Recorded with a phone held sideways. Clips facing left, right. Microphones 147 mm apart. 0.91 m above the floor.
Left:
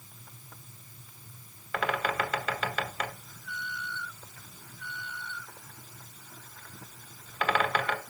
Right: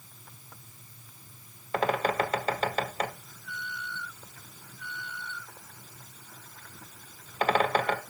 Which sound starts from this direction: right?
A bird, at 1.7 s.